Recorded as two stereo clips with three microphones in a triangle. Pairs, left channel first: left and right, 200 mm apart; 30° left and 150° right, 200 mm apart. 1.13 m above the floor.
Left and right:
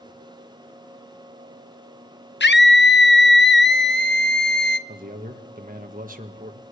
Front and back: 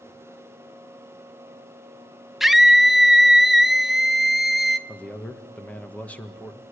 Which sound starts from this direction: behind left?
A scream, at 2.4 s.